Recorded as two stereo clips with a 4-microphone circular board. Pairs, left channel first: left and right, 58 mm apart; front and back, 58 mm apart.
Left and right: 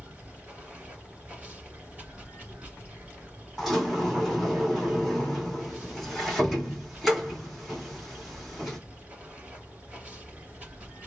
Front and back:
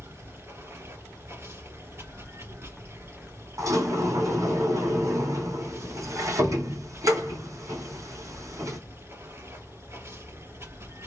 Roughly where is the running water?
Behind right.